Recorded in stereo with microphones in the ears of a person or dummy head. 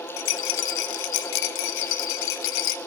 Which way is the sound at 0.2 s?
70° left (ahead or behind).